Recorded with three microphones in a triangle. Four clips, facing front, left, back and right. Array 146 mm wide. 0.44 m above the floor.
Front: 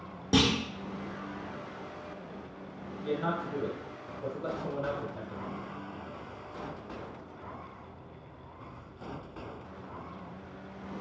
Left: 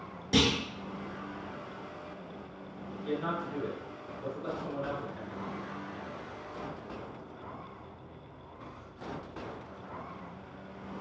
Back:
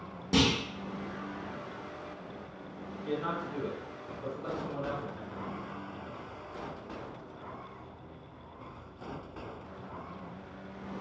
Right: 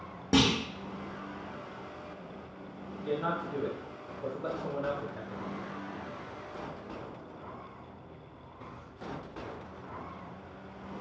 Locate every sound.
0.3 s a clunk: 75° right, 0.8 m
3.0 s a man speaking: 70° right, 1.3 m